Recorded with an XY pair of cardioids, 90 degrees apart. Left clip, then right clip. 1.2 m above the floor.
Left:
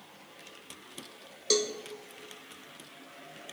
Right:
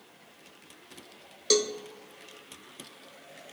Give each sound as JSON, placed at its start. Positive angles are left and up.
{"t": 1.5, "sound": "a cowbell", "azimuth_deg": -25, "distance_m": 0.9}